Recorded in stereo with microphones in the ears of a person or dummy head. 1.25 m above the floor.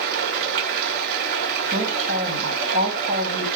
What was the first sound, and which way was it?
Running water, 55° right (ahead or behind).